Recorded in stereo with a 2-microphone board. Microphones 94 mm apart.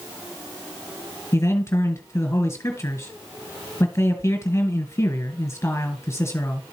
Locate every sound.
1.3 s a man speaking: 30° left (ahead or behind), 1.9 m